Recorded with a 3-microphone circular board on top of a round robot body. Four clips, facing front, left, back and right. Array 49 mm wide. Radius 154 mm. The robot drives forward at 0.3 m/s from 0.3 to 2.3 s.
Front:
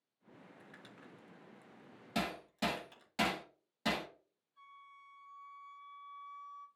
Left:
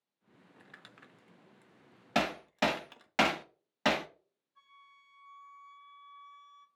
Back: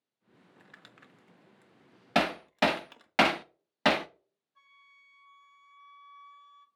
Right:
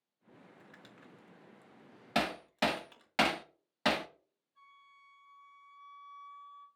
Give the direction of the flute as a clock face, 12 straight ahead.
7 o'clock.